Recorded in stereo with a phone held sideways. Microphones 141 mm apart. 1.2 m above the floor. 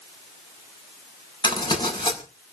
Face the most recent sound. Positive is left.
turn(degrees=35)  # may be behind; listen again after turning